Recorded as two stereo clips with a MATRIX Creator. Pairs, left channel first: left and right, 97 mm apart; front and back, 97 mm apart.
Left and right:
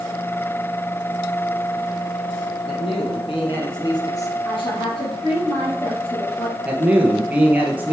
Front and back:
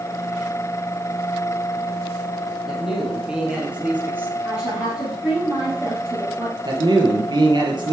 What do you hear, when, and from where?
2.7 s a man speaking: 95° left, 3.5 m; by 4.3 s 130° left, 1.6 m
4.4 s a woman speaking: 100° left, 3 m
6.7 s a man speaking: 160° right, 1.8 m